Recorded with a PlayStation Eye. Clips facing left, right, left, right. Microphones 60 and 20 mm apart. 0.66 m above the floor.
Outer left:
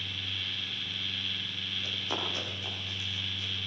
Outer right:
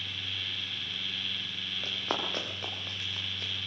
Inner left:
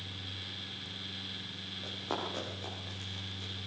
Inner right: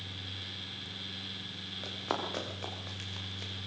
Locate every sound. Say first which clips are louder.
1.8 s running footsteps: outer right 2 dB, inner right 2 dB; 45° right (ahead or behind), 6.5 m; by 3.5 s 55° right (ahead or behind), 6 m